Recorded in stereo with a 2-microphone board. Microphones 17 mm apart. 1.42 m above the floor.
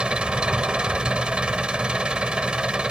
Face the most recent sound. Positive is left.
turn(degrees=-60)  # may be behind; listen again after turning